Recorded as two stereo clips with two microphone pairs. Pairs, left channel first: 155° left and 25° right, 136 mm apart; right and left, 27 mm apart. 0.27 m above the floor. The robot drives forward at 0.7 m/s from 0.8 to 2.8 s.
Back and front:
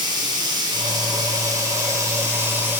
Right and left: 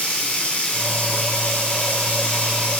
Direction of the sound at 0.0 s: 85° right.